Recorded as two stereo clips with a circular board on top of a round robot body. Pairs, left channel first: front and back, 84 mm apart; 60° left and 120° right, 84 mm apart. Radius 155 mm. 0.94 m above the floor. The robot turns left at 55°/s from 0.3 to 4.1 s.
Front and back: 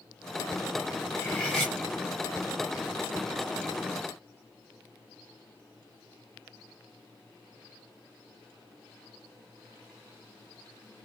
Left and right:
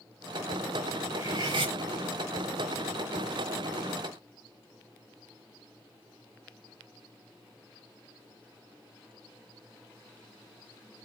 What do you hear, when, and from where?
1.1 s cutlery clinking: 60° right, 0.7 m; by 1.8 s 95° right, 0.7 m